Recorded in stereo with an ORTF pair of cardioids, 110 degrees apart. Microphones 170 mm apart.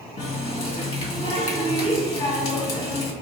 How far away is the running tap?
About 1.2 m.